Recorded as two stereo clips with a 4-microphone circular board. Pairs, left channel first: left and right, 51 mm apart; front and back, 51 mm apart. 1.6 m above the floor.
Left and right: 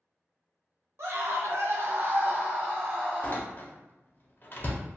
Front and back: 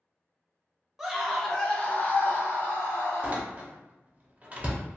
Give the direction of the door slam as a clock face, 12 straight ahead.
8 o'clock.